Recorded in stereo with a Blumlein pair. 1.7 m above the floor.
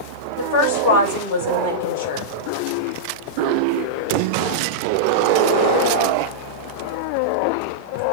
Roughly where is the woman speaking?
Ahead left.